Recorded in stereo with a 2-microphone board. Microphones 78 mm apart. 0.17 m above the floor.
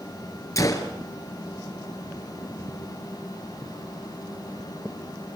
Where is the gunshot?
45° left (ahead or behind), 2.5 m.